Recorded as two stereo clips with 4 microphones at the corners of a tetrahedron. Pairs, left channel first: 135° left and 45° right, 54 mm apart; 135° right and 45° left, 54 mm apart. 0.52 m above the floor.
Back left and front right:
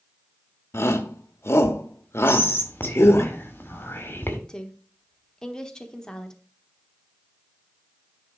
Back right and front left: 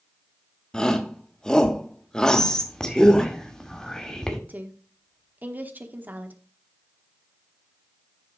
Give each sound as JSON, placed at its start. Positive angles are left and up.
{"t": 0.7, "sound": "a shout", "azimuth_deg": 150, "distance_m": 1.1}
{"t": 2.3, "sound": "whispering", "azimuth_deg": 150, "distance_m": 1.8}
{"t": 4.5, "sound": "a woman speaking", "azimuth_deg": 65, "distance_m": 1.1}